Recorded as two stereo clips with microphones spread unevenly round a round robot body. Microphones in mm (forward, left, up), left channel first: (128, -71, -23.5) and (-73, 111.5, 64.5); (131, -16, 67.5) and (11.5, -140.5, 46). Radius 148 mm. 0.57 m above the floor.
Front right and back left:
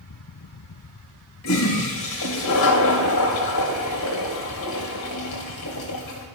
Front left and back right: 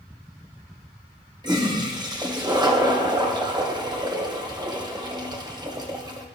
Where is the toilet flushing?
70° right, 2 m.